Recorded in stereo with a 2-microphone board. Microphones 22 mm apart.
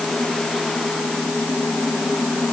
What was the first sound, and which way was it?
Only background noise.